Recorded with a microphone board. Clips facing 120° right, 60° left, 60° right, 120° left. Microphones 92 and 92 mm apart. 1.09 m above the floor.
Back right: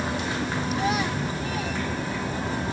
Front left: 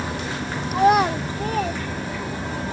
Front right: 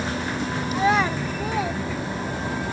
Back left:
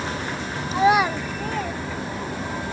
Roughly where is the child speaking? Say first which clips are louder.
Front left 12 dB, back left 3 dB; ahead left.